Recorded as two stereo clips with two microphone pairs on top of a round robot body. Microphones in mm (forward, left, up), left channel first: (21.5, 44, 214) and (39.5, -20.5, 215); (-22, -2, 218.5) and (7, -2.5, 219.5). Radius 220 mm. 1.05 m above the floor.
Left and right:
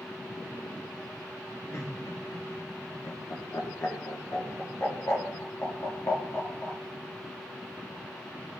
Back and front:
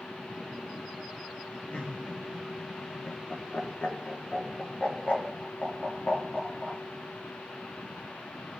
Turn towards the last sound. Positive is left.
turn(degrees=150)